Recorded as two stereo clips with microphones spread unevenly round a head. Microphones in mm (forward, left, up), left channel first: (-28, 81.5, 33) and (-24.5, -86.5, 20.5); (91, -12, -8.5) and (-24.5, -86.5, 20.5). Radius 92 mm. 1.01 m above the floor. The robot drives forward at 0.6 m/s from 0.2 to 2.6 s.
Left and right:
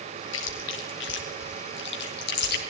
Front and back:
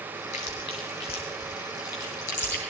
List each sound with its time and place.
0.3 s chewing: 90° left, 3 m; by 2.7 s 110° left, 3.5 m